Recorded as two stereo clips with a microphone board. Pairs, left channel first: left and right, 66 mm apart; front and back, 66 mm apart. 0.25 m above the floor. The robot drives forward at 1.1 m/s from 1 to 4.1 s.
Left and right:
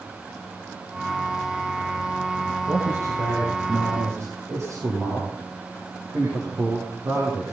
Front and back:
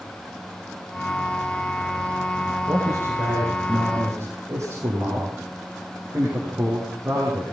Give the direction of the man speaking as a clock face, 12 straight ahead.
4 o'clock.